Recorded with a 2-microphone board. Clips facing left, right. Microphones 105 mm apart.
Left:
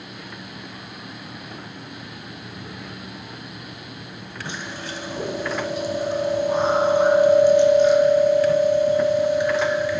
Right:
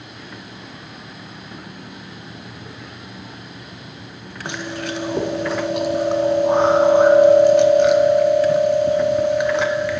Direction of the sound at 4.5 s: 70° right (ahead or behind).